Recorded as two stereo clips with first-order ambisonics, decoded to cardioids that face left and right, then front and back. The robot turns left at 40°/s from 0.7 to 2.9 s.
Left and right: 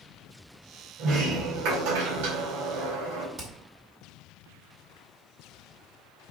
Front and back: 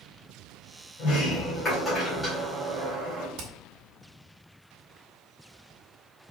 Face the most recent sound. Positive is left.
turn(degrees=-155)